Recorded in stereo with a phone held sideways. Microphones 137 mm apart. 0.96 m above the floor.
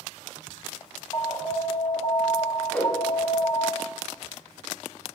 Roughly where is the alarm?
Left.